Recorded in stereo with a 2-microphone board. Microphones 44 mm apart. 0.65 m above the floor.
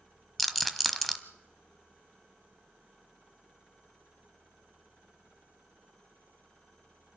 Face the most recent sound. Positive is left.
turn(degrees=0)  # may be behind; listen again after turning